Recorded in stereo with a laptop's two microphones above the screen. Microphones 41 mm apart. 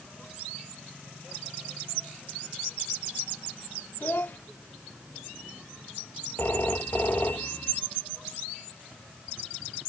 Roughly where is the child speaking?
Left.